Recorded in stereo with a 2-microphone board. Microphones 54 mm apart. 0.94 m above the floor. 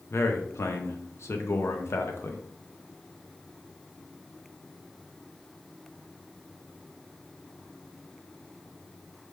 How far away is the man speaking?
About 0.5 m.